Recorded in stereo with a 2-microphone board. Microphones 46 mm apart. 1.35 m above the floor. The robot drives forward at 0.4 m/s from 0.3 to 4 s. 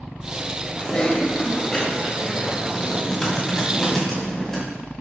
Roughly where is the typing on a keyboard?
Centre.